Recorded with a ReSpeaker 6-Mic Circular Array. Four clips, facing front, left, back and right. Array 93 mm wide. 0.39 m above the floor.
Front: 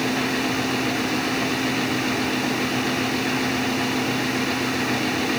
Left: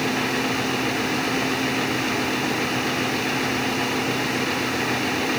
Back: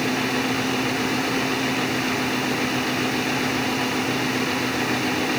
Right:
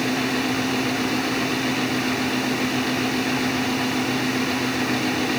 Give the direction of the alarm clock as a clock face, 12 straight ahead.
I don't hear an alarm clock.